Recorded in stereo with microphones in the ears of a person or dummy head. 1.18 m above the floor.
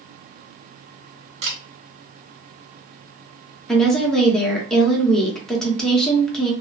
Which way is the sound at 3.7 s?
Centre (ahead or behind).